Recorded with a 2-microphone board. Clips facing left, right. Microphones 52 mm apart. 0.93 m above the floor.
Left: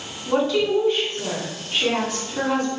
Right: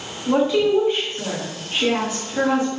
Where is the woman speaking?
15° right (ahead or behind), 1.3 m.